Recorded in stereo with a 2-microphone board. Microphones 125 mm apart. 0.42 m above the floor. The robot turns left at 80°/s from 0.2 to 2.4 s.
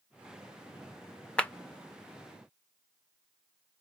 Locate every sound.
1.4 s a clap: 10° left (ahead or behind), 0.6 m; by 1.5 s 15° left (ahead or behind), 0.6 m